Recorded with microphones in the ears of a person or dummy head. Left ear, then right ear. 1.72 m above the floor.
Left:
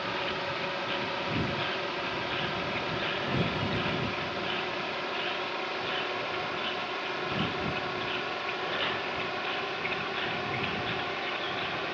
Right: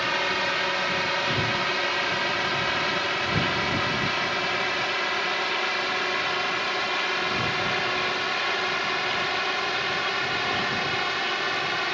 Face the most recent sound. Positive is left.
turn(degrees=-55)  # may be behind; listen again after turning